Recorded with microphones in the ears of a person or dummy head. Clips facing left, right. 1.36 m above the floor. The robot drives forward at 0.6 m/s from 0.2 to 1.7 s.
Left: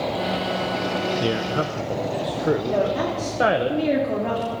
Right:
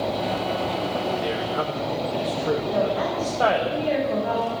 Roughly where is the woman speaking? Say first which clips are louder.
Left 1 dB; left.